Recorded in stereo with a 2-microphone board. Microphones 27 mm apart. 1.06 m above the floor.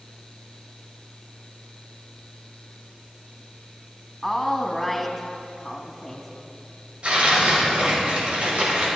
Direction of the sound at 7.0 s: 50° right (ahead or behind).